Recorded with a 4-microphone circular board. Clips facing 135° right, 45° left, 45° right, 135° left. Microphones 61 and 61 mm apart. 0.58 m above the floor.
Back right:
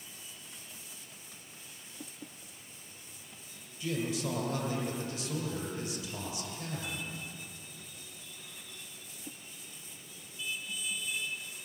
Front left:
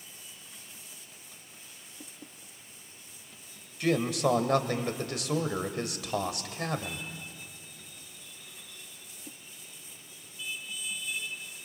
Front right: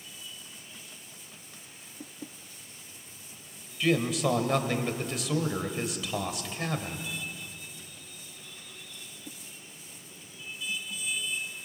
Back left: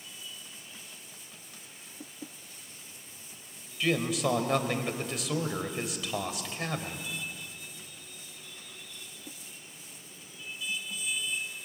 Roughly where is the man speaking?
Ahead left.